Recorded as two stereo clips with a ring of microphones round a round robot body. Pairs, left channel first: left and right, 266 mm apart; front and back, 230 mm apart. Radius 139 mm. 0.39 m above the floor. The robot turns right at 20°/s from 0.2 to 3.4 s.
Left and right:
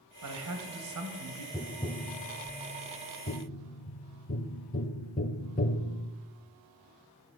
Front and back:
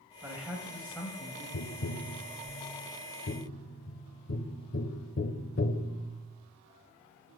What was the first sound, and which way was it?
A man speaking, 100° right.